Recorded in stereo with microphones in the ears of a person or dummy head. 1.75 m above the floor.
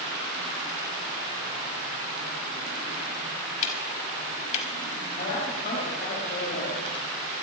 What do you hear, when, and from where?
3.6 s ticking: 45° left (ahead or behind), 1.9 m
5.2 s a woman speaking: 45° left (ahead or behind), 5 m